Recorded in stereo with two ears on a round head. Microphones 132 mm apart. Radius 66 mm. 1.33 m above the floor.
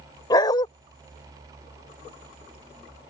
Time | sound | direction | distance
0.3 | a dog barking | 30° left (ahead or behind) | ?